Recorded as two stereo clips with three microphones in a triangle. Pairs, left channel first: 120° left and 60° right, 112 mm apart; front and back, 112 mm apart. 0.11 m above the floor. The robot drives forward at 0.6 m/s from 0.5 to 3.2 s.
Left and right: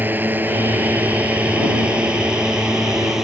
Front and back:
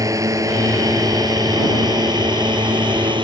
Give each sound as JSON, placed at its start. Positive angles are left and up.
{"t": 0.0, "sound": "a drone", "azimuth_deg": -130}